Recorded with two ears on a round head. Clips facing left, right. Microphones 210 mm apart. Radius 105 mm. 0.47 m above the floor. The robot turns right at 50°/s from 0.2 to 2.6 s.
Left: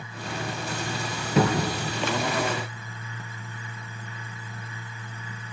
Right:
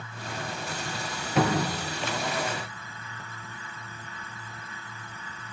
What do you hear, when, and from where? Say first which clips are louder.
1.4 s a cupboard door: left 2 dB; 75° left (ahead or behind), 4.5 m; by 1.8 s 85° left, 4.5 m